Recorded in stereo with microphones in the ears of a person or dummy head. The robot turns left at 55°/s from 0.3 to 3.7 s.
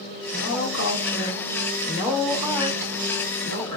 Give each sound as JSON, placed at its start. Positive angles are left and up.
{"t": 0.3, "sound": "a woman speaking", "azimuth_deg": 125, "distance_m": 2.0}